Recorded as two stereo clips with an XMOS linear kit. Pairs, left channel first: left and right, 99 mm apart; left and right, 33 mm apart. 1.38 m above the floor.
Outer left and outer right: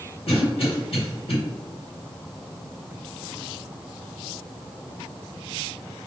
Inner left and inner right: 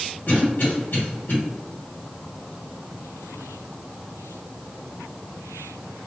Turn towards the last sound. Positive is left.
turn(degrees=80)